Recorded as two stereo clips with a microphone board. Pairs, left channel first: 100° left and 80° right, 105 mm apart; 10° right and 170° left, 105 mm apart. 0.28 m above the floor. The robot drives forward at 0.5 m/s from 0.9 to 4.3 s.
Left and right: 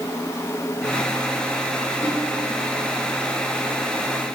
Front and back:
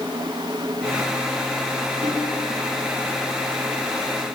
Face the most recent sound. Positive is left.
turn(degrees=170)